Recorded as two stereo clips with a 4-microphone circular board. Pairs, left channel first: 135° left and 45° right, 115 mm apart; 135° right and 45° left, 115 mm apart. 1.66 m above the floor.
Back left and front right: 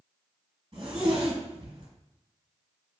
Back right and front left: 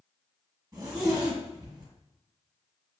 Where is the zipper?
10° right, 1.1 m.